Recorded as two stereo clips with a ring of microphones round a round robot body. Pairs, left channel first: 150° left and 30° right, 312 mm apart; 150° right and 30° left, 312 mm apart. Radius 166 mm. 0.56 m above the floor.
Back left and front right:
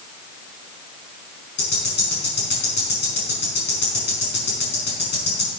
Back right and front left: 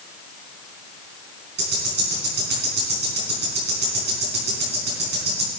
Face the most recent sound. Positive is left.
turn(degrees=90)